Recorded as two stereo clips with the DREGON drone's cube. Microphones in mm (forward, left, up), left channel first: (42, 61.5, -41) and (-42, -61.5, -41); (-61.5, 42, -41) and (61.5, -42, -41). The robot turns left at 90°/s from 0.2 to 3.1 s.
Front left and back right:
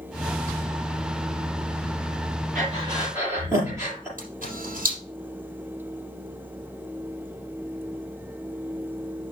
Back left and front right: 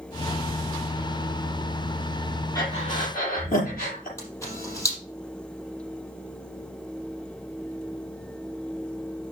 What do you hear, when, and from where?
2.5 s breathing: 145° right, 6.5 m; by 4.1 s 165° left, 6.5 m
4.2 s a camera shutter: 145° right, 4.5 m